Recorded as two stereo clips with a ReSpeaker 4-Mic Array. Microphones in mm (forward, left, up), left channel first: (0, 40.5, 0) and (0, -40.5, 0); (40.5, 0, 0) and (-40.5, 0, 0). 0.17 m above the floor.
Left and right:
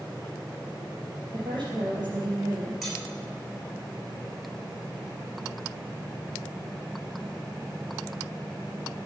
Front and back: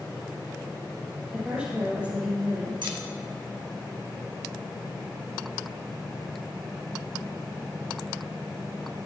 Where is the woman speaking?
105° right, 5.5 m.